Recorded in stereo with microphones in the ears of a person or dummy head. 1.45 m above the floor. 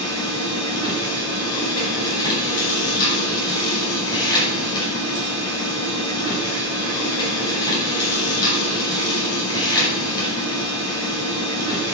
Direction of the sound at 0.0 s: 20° left (ahead or behind).